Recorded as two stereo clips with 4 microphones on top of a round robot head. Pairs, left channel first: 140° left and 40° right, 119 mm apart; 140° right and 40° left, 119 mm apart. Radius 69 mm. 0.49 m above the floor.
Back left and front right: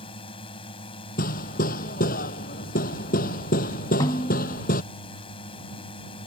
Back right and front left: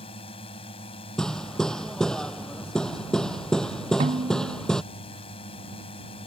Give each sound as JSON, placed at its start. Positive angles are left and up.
{"t": 0.0, "sound": "a drone", "azimuth_deg": 180}
{"t": 1.2, "sound": "hammering", "azimuth_deg": 135}
{"t": 4.0, "sound": "a snare drum", "azimuth_deg": 75}